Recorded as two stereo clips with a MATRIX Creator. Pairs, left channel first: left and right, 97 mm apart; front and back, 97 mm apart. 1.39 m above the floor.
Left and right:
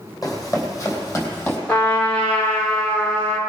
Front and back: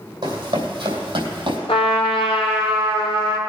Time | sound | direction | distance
0.2 | running footsteps | 140° left | 3.5 m
1.7 | a trumpet | 15° left | 2 m